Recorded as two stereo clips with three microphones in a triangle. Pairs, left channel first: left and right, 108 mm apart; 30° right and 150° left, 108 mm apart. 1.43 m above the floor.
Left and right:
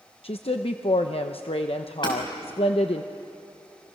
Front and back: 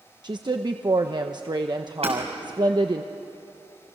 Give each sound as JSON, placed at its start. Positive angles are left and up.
{"t": 0.2, "sound": "a woman speaking", "azimuth_deg": 105, "distance_m": 0.9}
{"t": 2.0, "sound": "hammering", "azimuth_deg": 130, "distance_m": 5.5}